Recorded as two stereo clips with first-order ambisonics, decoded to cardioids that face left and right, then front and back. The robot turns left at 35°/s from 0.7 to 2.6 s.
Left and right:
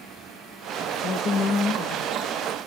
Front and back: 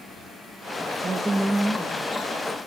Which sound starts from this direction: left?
A woman speaking, at 1.0 s.